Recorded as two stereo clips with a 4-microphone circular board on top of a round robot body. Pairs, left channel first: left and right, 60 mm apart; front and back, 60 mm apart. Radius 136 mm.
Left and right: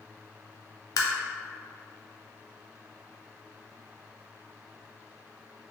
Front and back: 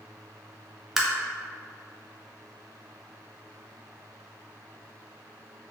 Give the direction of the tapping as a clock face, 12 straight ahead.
9 o'clock.